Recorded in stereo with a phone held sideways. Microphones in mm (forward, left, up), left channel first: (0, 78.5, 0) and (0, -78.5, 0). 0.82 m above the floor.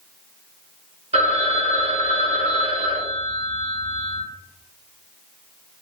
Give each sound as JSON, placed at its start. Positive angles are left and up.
{"t": 1.1, "sound": "a phone ringing", "side_deg": -45, "distance_m": 0.8}